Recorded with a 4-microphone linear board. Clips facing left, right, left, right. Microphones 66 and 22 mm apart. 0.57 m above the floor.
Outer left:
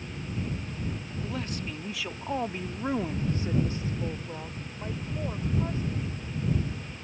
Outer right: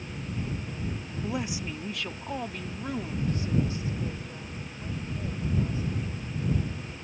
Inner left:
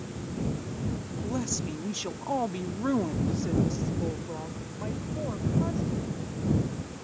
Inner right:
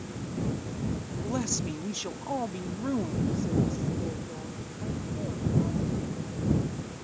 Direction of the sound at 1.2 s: 20° right (ahead or behind).